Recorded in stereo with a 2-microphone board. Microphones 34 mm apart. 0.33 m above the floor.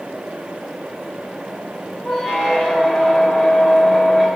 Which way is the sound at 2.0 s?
20° left (ahead or behind).